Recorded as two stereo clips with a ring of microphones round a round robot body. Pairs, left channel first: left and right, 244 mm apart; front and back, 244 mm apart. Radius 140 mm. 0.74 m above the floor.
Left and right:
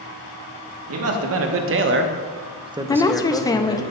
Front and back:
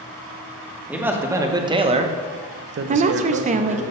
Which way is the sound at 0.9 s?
95° right.